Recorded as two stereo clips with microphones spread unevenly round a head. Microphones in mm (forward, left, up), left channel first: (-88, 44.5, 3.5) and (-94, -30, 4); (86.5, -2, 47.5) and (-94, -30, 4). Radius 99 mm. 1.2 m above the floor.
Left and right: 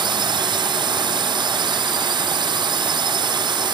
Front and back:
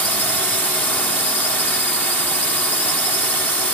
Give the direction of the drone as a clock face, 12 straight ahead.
3 o'clock.